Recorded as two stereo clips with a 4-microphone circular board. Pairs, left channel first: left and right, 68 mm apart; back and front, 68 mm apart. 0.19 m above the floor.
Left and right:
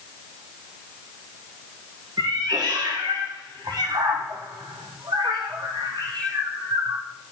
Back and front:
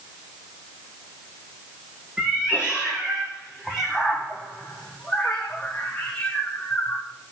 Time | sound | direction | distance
2.2 | a cat meowing | 75° right | 3.5 m